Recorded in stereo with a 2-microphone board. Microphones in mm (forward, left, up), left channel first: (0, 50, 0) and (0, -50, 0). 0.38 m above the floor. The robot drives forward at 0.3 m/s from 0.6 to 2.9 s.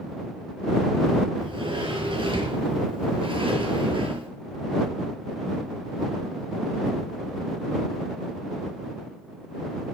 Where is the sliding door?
50° right (ahead or behind), 6 m; by 4.3 s 55° right (ahead or behind), 6 m.